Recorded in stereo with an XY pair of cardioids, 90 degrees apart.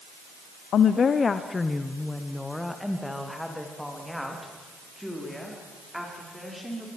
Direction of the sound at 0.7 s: 70° left.